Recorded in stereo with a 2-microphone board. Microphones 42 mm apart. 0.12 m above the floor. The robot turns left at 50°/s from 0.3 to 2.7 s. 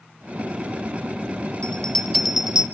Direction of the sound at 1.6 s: 25° left (ahead or behind).